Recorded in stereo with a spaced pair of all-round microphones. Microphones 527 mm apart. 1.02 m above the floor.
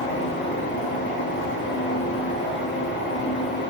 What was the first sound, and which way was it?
A fan, 20° left (ahead or behind).